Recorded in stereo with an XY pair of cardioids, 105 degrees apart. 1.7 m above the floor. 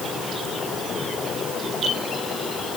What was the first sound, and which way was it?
Only background noise.